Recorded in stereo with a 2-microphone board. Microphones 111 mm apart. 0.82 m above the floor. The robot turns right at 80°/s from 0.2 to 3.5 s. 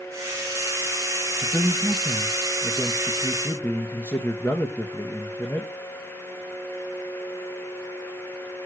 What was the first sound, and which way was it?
A man speaking, 15° right (ahead or behind).